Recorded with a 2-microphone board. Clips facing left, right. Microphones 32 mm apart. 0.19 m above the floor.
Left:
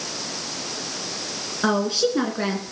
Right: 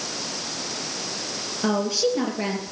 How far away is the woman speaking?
About 2 m.